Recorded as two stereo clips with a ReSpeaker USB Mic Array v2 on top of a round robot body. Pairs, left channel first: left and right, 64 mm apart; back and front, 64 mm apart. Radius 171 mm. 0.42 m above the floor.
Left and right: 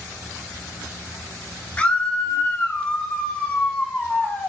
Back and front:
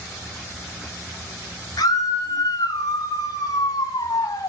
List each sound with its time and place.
1.8 s a scream: 160° left, 8 m; by 4.5 s 155° left, 4.5 m